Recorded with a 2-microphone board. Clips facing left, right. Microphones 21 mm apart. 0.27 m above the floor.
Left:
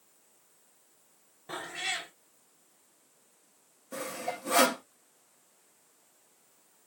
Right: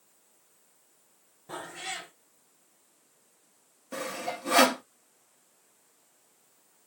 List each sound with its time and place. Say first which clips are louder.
1.5 s a cat meowing: left 3 dB; 45° left (ahead or behind), 1.3 m
3.9 s sawing: right 2 dB; 20° right (ahead or behind), 1.3 m